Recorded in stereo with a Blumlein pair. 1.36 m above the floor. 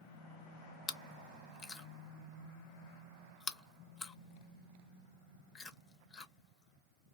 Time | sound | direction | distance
0.9 | chewing | 20° left | 0.9 m